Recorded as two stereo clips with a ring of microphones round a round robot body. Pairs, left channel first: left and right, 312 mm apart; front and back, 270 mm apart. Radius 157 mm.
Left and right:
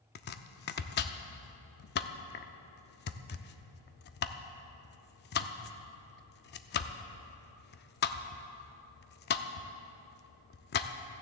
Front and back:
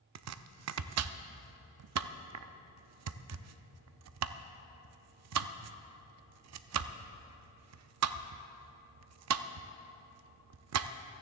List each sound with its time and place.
0.1 s chopping: 150° left, 0.5 m